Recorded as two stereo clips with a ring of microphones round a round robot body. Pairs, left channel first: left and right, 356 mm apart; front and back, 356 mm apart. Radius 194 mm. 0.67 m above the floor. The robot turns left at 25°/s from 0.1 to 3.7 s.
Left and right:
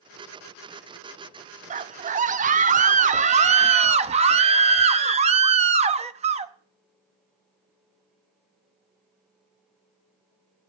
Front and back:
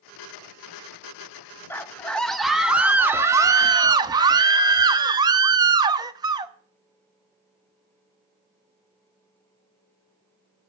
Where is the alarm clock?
No alarm clock in this recording.